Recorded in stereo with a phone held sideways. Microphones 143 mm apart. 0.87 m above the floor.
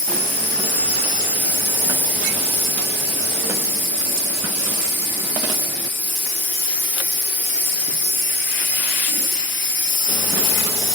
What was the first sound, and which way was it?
An insect, 10° left (ahead or behind).